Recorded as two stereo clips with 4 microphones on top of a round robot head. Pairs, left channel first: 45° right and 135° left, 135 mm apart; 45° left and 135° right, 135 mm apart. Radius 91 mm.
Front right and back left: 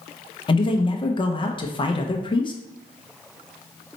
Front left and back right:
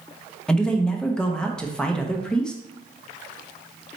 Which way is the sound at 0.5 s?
35° right.